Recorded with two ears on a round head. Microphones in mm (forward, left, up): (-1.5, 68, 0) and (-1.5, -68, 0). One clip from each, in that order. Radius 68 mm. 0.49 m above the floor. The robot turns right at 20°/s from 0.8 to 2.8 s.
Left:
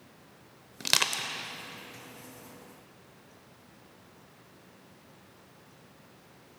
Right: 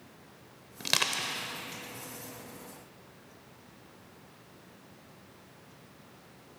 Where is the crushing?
20° left (ahead or behind), 0.7 m; by 1.3 s 15° left (ahead or behind), 0.7 m.